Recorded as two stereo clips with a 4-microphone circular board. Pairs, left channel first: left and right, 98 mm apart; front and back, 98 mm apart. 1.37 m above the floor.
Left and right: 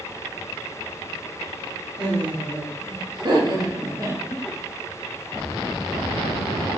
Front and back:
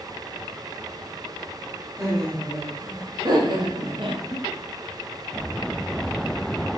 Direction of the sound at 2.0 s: 120° right.